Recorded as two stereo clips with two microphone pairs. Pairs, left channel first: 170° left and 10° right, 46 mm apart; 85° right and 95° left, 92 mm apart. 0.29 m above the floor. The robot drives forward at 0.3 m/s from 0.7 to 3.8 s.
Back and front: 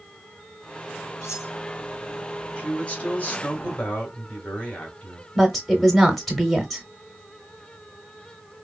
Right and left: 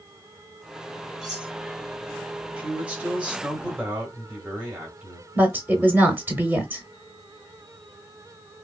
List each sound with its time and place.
1.2 s cutlery clinking: straight behind, 1.8 m
2.6 s a man speaking: 150° left, 1.4 m; by 5.2 s 165° left, 1.6 m
5.3 s a woman speaking: 80° left, 1.0 m